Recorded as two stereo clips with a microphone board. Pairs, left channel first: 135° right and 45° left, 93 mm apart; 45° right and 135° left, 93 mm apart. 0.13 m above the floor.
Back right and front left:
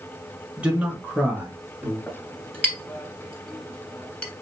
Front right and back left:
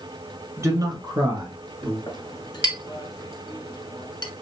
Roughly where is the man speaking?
Left.